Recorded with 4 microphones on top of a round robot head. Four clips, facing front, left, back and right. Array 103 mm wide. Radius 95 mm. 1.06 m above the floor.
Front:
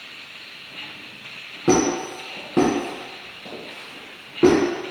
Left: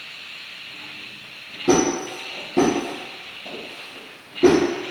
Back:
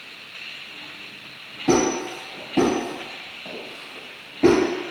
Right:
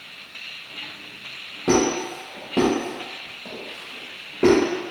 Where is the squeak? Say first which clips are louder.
Left 1 dB, front 1 dB; 30° right, 1.3 m.